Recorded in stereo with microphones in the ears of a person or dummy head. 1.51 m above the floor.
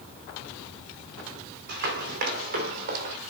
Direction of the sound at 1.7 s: 60° right (ahead or behind).